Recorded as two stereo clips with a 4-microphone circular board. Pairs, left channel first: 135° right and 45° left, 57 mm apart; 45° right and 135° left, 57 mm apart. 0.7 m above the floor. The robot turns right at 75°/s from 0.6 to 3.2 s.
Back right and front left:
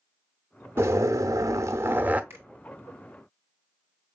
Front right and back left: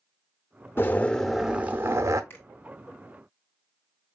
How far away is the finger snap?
About 2.0 m.